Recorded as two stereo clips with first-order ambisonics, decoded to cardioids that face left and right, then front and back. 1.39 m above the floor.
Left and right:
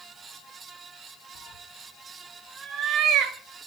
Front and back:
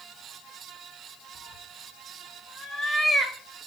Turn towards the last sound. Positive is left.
turn(degrees=-85)